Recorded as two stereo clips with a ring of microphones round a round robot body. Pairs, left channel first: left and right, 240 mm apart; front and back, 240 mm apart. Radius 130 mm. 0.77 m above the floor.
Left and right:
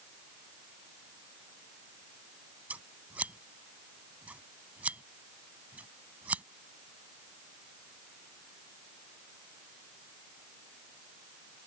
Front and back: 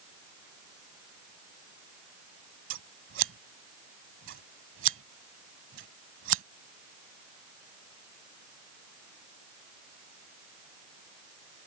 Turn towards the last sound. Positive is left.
turn(degrees=-170)